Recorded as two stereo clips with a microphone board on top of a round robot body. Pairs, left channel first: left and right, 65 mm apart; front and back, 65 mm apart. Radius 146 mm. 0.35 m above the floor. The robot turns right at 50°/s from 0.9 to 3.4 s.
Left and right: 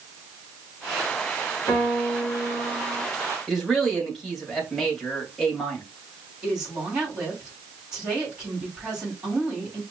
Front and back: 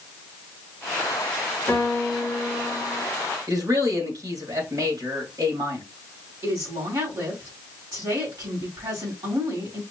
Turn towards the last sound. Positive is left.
turn(degrees=-165)